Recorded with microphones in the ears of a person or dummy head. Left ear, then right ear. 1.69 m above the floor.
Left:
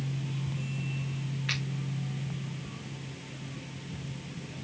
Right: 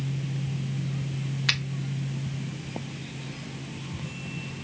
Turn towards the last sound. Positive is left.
turn(degrees=-45)  # may be behind; listen again after turning